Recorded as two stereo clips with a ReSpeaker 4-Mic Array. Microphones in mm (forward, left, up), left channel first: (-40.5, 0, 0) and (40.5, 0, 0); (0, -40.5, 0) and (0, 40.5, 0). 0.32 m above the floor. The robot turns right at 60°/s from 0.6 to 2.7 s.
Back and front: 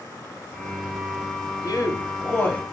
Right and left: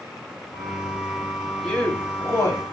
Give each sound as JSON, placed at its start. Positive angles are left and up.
{"t": 1.6, "sound": "a man speaking", "azimuth_deg": -175, "distance_m": 1.8}